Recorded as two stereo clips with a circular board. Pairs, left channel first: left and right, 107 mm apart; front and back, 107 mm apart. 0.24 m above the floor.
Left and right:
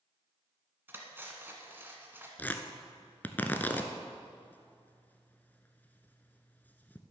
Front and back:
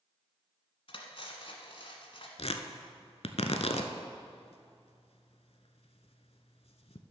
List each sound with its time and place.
0.9 s cutlery clinking: 20° right, 1.4 m
2.4 s tearing paper: 15° left, 0.8 m